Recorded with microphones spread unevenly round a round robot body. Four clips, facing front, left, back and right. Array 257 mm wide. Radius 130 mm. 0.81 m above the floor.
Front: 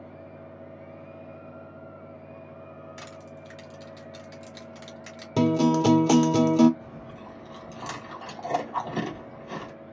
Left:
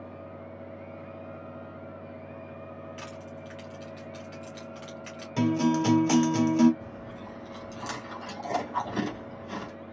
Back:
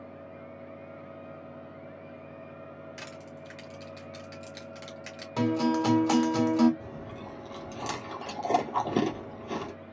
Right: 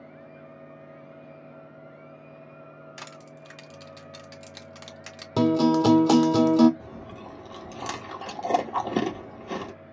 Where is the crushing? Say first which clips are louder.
Left 3 dB, front 1 dB; 105° right, 1.8 m.